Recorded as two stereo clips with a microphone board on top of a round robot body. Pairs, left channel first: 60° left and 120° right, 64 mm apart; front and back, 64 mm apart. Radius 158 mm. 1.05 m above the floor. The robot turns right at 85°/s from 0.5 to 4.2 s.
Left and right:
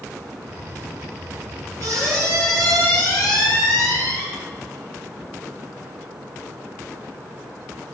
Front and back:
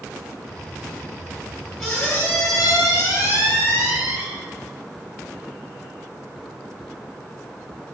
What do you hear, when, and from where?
1.8 s a squeak: 90° right, 2 m; by 4.2 s 115° left, 2 m